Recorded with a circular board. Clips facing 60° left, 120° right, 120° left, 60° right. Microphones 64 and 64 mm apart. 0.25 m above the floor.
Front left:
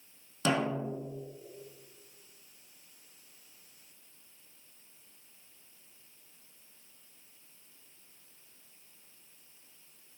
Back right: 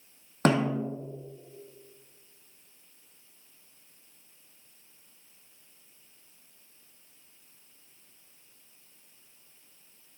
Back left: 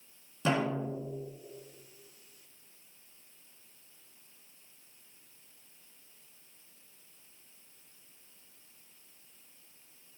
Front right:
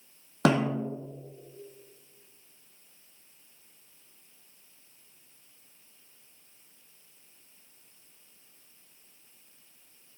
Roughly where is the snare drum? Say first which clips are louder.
Back right 5 dB, front right 5 dB; right.